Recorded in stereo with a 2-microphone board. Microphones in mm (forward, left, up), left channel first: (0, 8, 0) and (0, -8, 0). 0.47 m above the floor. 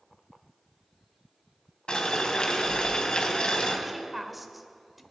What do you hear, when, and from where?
1.9 s boiling: 65° left (ahead or behind), 2.5 m
3.9 s a woman speaking: 10° right (ahead or behind), 1.4 m